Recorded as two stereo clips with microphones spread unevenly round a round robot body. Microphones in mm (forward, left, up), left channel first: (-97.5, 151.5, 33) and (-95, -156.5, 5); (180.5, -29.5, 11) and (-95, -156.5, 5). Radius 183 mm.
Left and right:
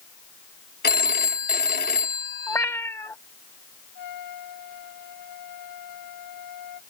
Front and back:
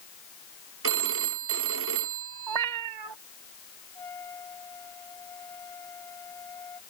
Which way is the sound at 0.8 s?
150° left.